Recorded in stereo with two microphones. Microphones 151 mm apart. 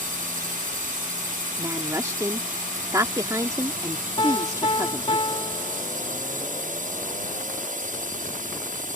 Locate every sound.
0.0 s a drone: 65° right (ahead or behind)
1.6 s a woman speaking: 20° right (ahead or behind)
4.2 s a piano: 35° left (ahead or behind)